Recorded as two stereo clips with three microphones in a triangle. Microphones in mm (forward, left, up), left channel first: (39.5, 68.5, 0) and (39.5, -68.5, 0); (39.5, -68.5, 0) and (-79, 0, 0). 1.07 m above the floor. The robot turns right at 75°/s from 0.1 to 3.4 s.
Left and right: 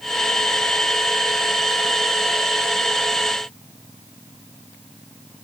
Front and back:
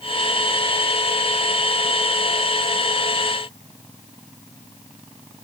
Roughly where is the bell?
I don't hear a bell.